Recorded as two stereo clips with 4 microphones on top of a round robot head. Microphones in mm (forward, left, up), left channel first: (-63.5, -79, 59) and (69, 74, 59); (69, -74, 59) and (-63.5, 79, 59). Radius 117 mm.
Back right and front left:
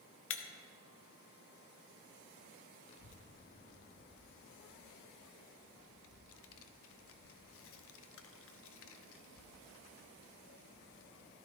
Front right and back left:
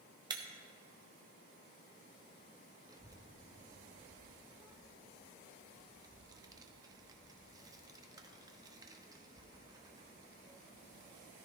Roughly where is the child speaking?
Behind right.